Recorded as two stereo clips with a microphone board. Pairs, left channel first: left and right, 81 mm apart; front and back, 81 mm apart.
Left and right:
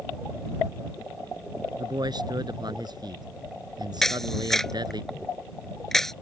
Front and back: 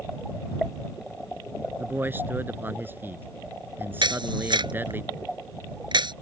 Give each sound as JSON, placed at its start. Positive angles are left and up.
{"t": 1.8, "sound": "a man speaking", "azimuth_deg": -115}
{"t": 4.0, "sound": "a camera shutter", "azimuth_deg": 175}